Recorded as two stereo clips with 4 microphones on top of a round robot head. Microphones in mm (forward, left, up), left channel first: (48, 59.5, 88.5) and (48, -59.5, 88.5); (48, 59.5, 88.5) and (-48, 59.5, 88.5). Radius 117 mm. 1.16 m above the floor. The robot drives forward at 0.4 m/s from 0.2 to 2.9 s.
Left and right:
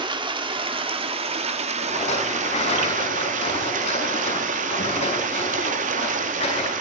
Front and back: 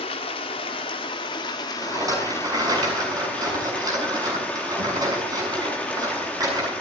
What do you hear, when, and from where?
0.0 s running water: 40° right, 1.7 m; by 6.8 s 80° right, 1.2 m
1.8 s a rattle: 130° left, 6.5 m